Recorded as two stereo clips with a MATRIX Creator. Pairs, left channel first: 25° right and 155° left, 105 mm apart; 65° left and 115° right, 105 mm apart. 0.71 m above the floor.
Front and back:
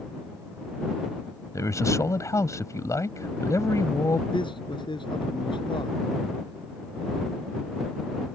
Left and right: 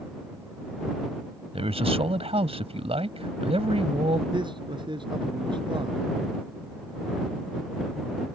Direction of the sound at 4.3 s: 70° right.